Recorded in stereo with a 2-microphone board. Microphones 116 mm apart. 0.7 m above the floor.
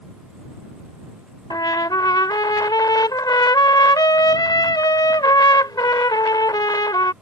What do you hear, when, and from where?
1.5 s a trumpet: 35° left (ahead or behind)